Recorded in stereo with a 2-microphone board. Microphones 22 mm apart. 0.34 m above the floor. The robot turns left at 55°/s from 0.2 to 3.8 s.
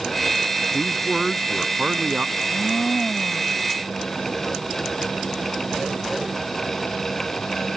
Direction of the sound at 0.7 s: 10° left.